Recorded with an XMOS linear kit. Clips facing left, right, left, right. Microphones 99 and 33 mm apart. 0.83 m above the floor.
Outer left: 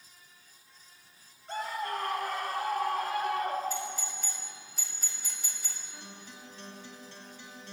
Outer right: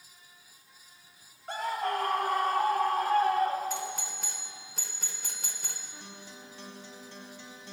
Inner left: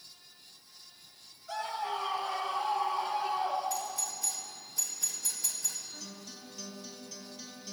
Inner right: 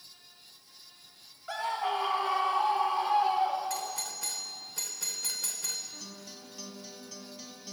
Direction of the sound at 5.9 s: 15° right (ahead or behind).